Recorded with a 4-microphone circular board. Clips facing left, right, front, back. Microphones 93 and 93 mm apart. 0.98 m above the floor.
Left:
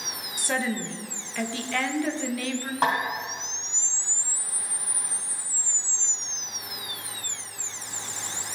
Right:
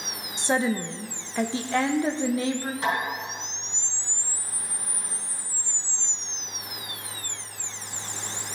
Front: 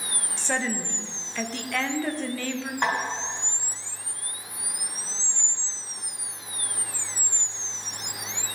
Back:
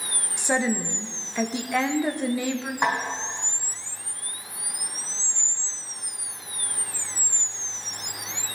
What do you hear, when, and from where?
0.4 s a woman speaking: 120° right, 0.6 m
2.8 s a snare drum: 95° left, 2.5 m